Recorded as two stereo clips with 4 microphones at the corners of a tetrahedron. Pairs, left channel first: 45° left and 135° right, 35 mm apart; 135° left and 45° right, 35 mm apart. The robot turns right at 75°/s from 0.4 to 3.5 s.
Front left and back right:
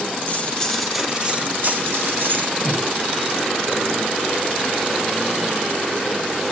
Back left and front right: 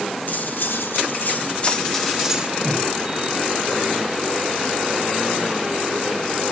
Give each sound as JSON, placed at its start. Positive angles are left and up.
{"t": 0.3, "sound": "cutlery clinking", "azimuth_deg": 95, "distance_m": 0.8}
{"t": 2.6, "sound": "breathing", "azimuth_deg": -20, "distance_m": 6.5}